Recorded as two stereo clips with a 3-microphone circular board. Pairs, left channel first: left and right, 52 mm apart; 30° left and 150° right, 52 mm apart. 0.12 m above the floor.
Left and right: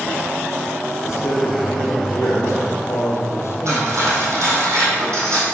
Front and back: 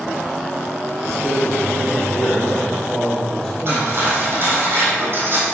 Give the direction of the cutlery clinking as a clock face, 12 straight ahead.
4 o'clock.